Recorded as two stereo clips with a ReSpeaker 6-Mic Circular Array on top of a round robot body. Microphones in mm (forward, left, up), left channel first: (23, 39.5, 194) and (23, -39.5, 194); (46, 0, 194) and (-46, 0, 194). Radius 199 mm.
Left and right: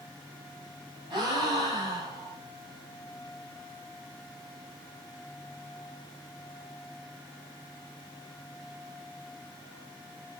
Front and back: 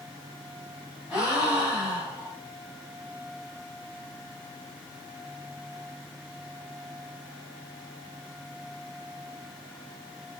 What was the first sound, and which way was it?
A gasp, 110° right.